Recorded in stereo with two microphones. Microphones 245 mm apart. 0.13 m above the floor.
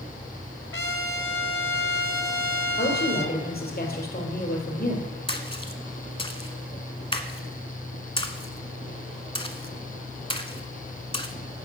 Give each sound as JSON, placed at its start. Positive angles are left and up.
{"t": 0.7, "sound": "a trumpet", "side_deg": 60, "distance_m": 0.9}
{"t": 2.8, "sound": "a woman speaking", "side_deg": 40, "distance_m": 3.0}
{"t": 5.3, "sound": "a splash", "side_deg": 25, "distance_m": 0.7}